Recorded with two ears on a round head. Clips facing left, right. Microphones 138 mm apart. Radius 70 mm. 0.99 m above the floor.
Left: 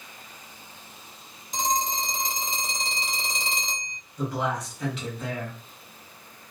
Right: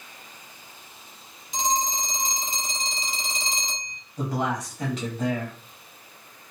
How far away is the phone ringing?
About 1.5 m.